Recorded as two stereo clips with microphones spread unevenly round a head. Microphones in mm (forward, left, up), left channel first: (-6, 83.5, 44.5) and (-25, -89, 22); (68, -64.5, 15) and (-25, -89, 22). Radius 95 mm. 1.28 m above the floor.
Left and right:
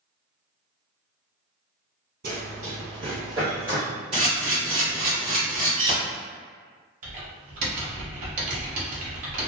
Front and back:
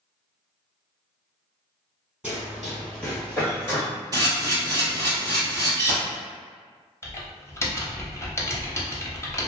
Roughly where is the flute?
I don't hear a flute.